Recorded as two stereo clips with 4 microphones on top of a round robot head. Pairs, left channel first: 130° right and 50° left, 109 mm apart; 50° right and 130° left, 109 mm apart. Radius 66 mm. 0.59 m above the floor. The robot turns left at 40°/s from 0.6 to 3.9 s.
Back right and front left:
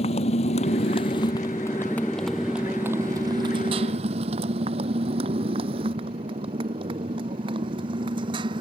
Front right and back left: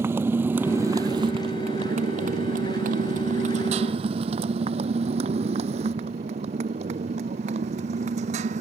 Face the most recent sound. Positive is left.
turn(degrees=100)